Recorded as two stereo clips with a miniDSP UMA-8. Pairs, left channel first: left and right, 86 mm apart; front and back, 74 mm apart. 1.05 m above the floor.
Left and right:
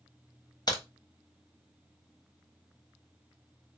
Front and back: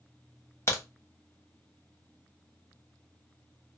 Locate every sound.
0.7 s a crack: 50° left, 0.8 m